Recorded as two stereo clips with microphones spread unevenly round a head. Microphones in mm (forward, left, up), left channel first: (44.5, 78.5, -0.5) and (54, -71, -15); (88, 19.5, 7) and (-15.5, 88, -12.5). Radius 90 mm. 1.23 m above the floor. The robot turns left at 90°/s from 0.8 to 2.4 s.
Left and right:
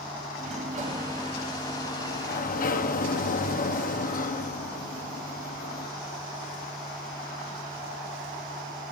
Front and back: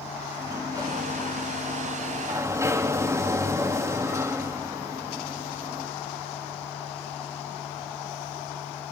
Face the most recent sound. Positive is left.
turn(degrees=75)